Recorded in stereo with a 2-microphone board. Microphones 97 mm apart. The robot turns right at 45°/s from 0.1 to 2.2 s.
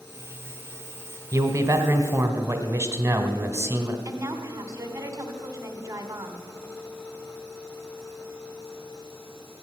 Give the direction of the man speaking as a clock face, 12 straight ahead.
3 o'clock.